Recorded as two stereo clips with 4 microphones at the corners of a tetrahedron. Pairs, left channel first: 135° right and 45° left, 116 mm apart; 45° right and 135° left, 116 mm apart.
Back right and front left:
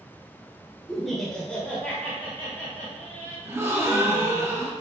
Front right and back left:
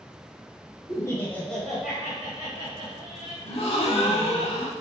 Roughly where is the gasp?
Ahead right.